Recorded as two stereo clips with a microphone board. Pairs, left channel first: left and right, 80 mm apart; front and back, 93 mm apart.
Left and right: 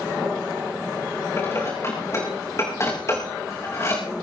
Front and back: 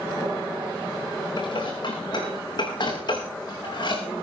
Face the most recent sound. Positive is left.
turn(degrees=35)